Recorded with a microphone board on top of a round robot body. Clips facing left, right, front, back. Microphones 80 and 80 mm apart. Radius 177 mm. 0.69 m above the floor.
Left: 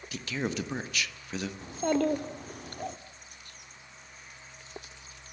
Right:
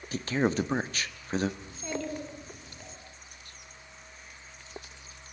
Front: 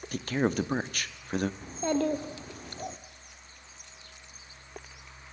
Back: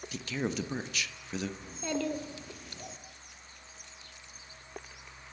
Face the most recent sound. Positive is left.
turn(degrees=55)